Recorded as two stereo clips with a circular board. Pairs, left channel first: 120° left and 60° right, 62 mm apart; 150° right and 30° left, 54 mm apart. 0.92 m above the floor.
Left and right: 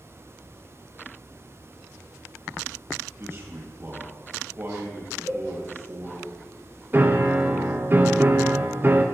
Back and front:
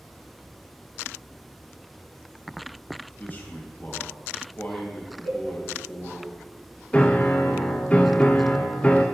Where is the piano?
95° right, 0.6 m.